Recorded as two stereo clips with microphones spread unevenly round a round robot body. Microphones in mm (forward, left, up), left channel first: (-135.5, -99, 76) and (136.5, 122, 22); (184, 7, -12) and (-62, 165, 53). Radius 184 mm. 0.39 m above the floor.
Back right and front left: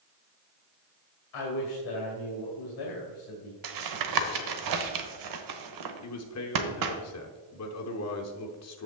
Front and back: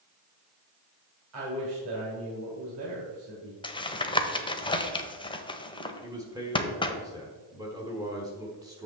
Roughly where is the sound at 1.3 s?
Behind.